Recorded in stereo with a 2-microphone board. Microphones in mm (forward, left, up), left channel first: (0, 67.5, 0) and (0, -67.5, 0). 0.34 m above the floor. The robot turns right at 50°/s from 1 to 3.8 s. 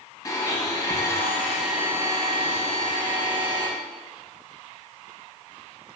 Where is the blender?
150° left, 0.9 m; by 3.7 s 75° right, 0.9 m.